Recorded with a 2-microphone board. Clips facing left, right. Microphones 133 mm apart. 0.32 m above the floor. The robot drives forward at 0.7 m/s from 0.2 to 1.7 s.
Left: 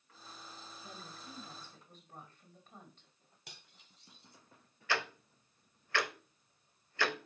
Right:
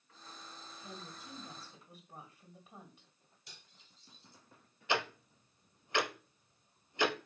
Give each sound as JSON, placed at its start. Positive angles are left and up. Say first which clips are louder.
{"t": 0.8, "sound": "a woman speaking", "louder": "right 3 dB", "side_deg": -10, "distance_m": 2.5}
{"t": 3.5, "sound": "cutlery clinking", "louder": "left 3 dB", "side_deg": 70, "distance_m": 1.5}
{"t": 4.9, "sound": "ticking", "louder": "right 2 dB", "side_deg": -20, "distance_m": 0.7}